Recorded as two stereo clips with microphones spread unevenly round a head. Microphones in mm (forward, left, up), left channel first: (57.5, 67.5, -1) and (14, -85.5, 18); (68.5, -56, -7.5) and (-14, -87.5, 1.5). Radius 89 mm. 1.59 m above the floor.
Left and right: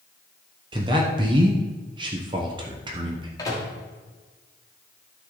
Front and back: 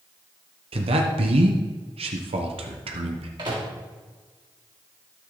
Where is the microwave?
145° left, 2 m.